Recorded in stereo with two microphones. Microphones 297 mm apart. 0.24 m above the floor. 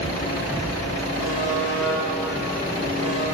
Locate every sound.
1.2 s a buzzer: 45° right (ahead or behind), 2.5 m